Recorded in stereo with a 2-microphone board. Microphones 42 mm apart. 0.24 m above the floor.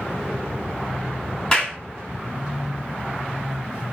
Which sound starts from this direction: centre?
A clap, at 1.5 s.